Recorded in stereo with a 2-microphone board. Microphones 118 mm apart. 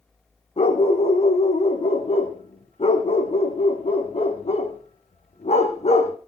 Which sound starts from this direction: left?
A dog barking, at 0.6 s.